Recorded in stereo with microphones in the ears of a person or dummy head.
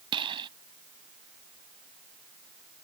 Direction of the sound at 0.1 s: 25° right (ahead or behind).